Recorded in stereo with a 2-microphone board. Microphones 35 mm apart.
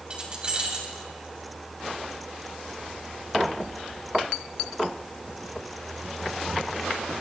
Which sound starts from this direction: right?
Keys jangling, at 0.1 s.